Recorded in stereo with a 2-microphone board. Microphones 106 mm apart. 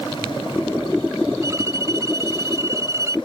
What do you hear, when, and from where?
1.4 s a violin: 30° right (ahead or behind)